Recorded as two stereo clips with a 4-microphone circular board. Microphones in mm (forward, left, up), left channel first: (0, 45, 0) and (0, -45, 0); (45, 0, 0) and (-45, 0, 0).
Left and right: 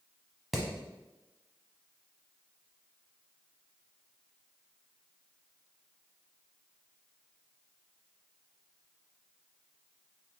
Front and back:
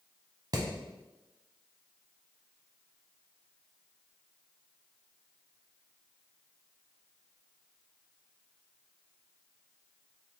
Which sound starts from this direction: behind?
Hammering, at 0.5 s.